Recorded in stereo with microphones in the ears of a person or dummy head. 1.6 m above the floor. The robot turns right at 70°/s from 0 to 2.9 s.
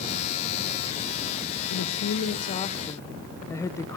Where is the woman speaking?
80° left, 1.2 m; by 4.0 s 165° left, 1.2 m.